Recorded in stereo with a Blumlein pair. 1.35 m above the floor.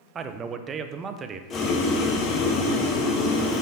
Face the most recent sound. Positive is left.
turn(degrees=25)